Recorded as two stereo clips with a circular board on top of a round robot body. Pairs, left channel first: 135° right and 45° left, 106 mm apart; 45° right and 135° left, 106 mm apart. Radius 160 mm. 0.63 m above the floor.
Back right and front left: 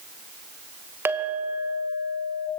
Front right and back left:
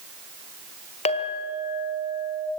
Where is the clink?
25° right, 2 m.